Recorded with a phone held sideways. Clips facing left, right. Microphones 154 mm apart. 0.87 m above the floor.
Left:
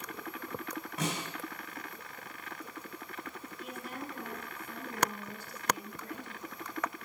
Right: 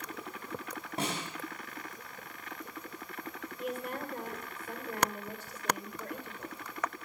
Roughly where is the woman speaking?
Right.